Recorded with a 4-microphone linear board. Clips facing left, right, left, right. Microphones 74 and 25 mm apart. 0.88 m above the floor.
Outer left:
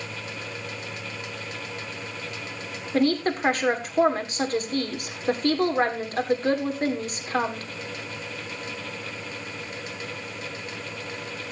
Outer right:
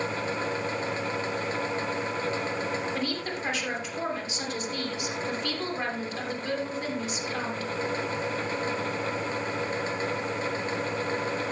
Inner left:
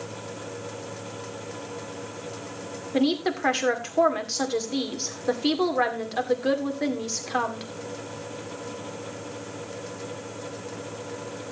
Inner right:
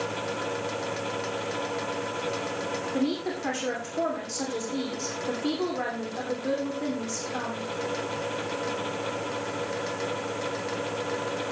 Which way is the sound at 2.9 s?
50° left (ahead or behind).